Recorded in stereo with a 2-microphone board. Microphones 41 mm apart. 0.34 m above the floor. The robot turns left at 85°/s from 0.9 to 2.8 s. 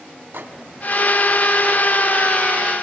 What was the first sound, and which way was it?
A microwave, 70° right (ahead or behind).